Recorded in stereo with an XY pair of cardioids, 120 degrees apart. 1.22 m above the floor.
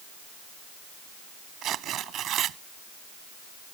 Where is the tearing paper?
60° right.